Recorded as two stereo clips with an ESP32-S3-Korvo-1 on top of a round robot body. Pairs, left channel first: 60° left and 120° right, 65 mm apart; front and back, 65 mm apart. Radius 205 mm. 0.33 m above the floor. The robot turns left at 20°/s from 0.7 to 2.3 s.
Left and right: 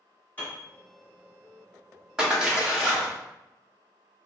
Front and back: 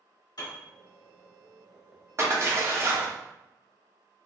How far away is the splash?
About 1.3 m.